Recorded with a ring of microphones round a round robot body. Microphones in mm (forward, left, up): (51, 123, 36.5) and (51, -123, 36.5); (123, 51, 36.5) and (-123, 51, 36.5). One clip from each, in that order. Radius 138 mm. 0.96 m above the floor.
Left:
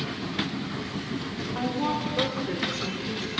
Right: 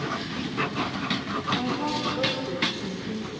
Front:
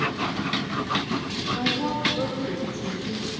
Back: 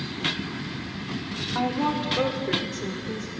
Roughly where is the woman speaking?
Behind.